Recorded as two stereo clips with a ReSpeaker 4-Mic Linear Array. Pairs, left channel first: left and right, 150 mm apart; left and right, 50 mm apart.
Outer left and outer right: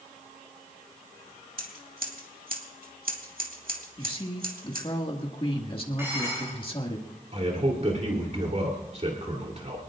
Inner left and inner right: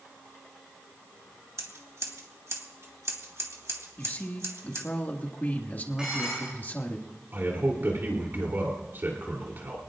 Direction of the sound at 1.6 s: 75° right (ahead or behind).